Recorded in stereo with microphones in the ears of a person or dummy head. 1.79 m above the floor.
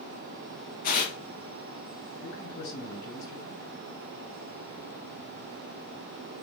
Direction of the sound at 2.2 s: 60° left (ahead or behind).